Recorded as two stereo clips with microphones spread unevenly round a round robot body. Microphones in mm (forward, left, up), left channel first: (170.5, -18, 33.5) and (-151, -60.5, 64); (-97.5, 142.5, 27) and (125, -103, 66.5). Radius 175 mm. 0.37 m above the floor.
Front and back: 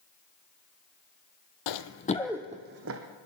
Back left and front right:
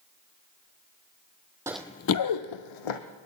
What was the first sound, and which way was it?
Running footsteps, 30° left.